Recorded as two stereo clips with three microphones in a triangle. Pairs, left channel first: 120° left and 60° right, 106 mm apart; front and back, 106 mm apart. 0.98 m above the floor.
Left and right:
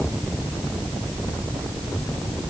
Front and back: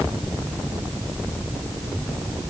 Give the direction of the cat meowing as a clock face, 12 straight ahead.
I don't hear a cat meowing.